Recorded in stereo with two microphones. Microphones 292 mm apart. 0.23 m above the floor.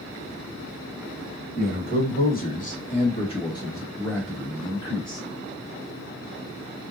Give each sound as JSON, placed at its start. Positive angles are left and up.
{"t": 1.6, "sound": "a man speaking", "side_deg": 35, "distance_m": 1.5}